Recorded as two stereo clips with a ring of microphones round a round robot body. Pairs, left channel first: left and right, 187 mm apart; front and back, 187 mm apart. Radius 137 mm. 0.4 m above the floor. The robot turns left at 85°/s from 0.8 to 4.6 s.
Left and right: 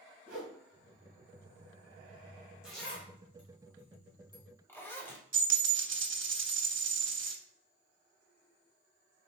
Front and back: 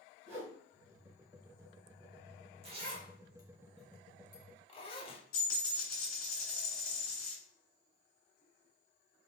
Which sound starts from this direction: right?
A dropped coin, at 5.3 s.